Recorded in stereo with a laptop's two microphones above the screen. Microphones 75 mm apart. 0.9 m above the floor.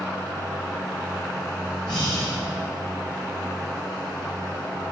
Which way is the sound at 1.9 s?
70° left (ahead or behind).